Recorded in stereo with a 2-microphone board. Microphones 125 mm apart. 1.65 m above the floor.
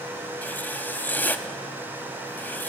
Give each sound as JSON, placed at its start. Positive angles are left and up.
{"t": 0.4, "sound": "writing", "side_deg": 15, "distance_m": 1.1}